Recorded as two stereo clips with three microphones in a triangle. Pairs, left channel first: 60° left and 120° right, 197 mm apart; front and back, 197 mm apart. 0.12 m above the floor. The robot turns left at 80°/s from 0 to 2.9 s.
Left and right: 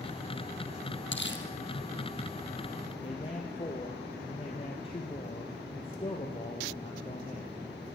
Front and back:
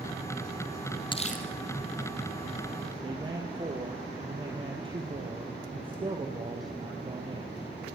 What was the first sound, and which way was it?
Crumpling, 65° left.